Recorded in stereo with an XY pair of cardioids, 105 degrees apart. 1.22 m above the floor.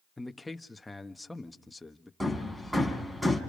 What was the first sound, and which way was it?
A man speaking, 10° left.